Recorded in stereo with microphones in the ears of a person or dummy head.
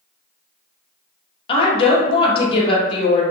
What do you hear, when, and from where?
1.5 s a woman speaking: 25° left (ahead or behind), 0.8 m